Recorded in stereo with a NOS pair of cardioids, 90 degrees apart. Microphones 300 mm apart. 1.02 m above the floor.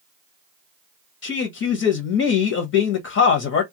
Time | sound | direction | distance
1.2 | a man speaking | 55° left | 0.9 m